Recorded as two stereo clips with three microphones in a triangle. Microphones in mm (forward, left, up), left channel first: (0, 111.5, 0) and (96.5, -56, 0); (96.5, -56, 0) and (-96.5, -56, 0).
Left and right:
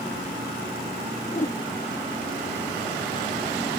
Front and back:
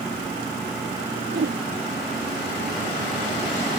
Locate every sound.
1.3 s a whoosh: 170° left